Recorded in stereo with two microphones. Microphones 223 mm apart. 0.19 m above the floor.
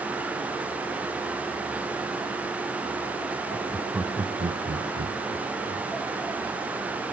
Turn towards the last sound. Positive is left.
turn(degrees=-65)  # may be behind; listen again after turning